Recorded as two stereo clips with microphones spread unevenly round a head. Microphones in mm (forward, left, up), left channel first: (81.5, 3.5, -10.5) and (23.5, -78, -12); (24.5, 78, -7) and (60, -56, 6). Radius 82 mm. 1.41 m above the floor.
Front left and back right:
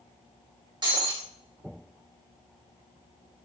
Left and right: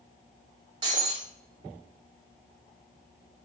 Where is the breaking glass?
115° right, 1.5 m.